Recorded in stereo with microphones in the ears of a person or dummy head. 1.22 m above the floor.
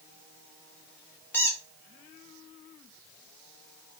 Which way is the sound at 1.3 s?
10° left (ahead or behind).